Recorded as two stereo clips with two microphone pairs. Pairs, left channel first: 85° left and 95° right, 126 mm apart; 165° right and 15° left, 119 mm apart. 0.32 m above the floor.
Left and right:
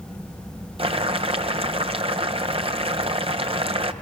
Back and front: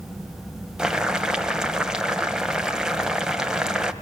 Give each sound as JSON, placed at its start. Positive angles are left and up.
{"t": 0.8, "sound": "boiling", "azimuth_deg": -70, "distance_m": 1.3}